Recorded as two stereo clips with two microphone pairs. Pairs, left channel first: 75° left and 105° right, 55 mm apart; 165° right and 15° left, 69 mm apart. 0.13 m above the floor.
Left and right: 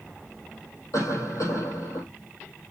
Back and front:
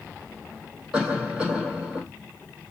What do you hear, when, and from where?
0.9 s a cough: 85° left, 4.5 m